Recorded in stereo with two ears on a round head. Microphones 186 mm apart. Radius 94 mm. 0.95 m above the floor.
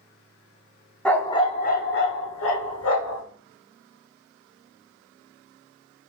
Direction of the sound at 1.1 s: 5° left (ahead or behind).